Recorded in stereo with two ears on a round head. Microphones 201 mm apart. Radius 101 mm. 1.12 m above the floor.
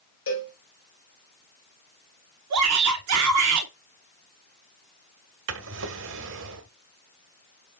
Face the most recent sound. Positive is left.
turn(degrees=-60)  # may be behind; listen again after turning